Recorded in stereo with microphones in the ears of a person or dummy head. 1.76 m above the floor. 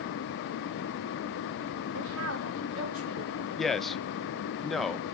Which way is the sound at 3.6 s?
5° left (ahead or behind).